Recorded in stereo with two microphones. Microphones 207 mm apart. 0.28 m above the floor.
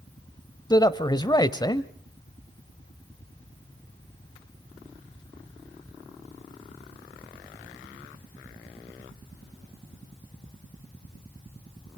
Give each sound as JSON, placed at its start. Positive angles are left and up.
{"t": 0.7, "sound": "a man speaking", "side_deg": 20, "distance_m": 1.1}